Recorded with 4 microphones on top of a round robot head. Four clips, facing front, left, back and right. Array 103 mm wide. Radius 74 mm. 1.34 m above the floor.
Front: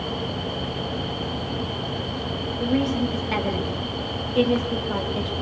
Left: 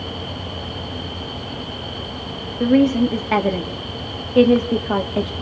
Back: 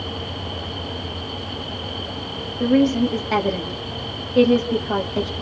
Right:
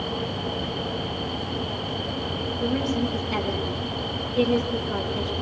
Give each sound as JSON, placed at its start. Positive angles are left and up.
{"t": 2.6, "sound": "a woman speaking", "azimuth_deg": 115, "distance_m": 2.5}